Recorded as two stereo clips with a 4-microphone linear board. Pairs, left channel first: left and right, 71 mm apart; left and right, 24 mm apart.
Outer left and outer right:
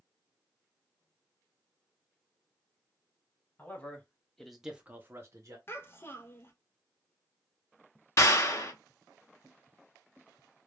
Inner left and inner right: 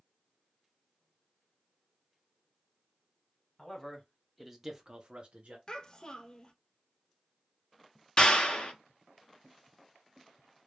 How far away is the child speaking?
About 0.6 m.